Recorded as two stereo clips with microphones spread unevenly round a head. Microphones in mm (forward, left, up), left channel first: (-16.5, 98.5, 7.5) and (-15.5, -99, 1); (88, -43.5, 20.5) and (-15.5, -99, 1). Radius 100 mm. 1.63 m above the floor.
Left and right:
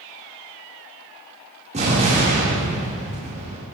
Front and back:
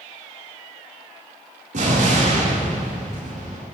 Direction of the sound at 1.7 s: 145° right.